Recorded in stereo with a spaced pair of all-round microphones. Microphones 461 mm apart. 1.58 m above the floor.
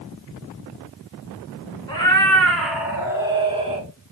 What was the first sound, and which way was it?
A cat meowing, 10° left (ahead or behind).